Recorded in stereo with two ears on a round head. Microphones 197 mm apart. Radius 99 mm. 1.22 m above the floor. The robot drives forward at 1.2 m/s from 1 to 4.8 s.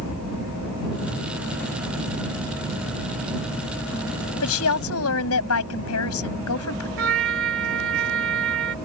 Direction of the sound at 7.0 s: 60° right (ahead or behind).